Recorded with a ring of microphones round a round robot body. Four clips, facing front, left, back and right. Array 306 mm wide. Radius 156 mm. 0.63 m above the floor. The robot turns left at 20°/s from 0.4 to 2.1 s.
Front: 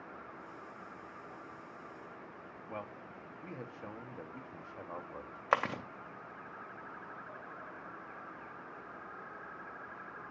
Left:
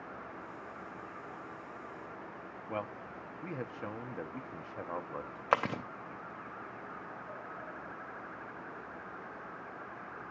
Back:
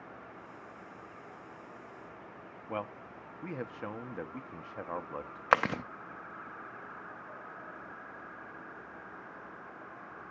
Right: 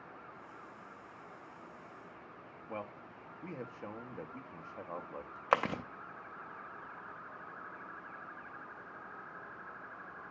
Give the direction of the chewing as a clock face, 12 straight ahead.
6 o'clock.